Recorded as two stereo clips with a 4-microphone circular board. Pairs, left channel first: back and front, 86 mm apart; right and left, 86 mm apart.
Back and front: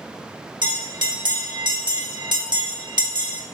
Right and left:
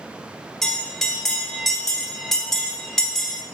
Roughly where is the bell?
Ahead.